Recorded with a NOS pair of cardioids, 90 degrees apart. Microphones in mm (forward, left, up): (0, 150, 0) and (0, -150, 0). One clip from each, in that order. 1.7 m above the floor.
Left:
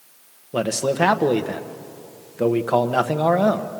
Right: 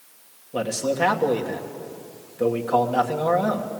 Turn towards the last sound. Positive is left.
turn(degrees=40)